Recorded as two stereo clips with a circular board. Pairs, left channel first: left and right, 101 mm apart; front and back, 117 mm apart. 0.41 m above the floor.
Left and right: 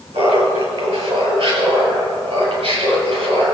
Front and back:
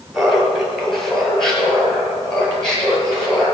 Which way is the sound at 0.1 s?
90° right.